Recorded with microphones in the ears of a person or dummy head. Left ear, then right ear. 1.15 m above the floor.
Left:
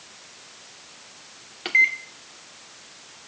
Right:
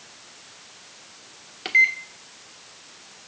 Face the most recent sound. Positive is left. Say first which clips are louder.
# right 1 dB
turn(degrees=0)  # may be behind; listen again after turning